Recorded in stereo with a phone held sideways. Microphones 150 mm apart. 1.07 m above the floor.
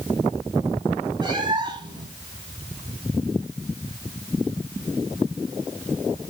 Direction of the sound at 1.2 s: 30° right (ahead or behind).